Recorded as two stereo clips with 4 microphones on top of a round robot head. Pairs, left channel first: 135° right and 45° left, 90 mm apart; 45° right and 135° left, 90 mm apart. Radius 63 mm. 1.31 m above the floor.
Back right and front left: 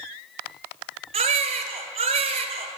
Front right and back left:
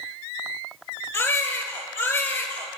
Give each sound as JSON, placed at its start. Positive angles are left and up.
{"t": 1.1, "sound": "a baby crying", "azimuth_deg": 25, "distance_m": 2.0}